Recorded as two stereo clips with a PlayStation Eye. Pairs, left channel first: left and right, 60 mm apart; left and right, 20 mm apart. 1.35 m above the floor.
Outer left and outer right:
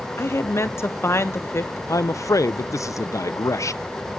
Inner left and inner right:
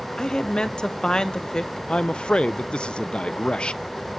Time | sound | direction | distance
0.2 | a woman speaking | 45° left (ahead or behind) | 1.0 m
1.9 | a man speaking | 55° left (ahead or behind) | 0.5 m